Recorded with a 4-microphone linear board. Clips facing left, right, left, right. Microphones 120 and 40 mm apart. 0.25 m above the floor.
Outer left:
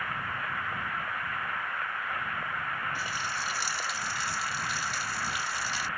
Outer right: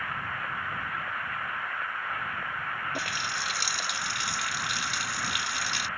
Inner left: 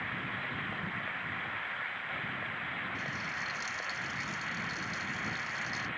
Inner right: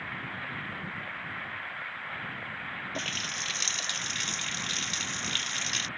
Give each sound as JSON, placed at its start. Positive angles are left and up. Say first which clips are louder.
{"t": 3.0, "sound": "a running tap", "louder": "outer right 1 dB, inner right 2 dB", "side_deg": -75}